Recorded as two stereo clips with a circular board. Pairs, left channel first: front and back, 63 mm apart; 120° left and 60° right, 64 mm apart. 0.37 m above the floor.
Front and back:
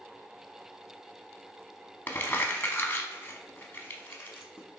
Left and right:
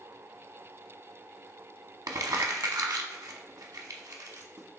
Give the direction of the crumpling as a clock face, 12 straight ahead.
2 o'clock.